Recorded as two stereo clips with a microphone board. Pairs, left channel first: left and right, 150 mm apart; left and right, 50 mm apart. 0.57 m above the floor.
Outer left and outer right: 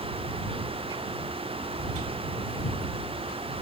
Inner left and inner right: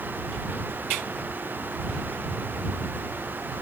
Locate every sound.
Only background noise.